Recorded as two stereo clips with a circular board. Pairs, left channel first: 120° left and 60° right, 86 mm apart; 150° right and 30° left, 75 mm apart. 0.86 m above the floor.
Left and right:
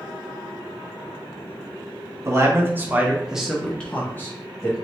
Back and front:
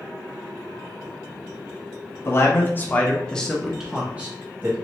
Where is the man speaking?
105° right, 1.1 m; by 4.8 s 80° left, 1.1 m.